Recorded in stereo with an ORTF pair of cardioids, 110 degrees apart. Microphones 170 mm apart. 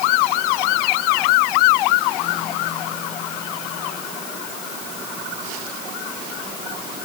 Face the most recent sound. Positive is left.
No sound to turn to.